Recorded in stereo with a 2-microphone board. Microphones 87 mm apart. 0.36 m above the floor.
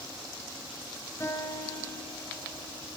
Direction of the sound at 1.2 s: 30° left (ahead or behind).